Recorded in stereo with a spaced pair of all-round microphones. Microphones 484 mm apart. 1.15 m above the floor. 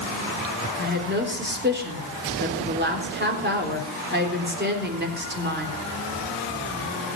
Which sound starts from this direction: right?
A woman speaking, at 0.8 s.